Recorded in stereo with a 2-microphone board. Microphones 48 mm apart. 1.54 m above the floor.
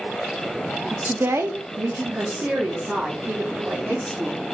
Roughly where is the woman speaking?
Right.